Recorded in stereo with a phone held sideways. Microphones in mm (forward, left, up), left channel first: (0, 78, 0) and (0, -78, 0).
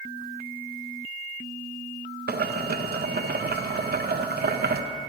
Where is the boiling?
85° right, 0.5 m.